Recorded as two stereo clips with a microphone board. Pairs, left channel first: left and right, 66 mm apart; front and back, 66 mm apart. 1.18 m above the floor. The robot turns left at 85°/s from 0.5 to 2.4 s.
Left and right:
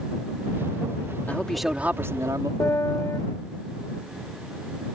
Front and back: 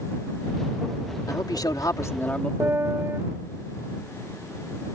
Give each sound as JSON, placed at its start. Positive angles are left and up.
{"t": 1.3, "sound": "a man speaking", "azimuth_deg": 25}
{"t": 2.6, "sound": "a piano", "azimuth_deg": 130}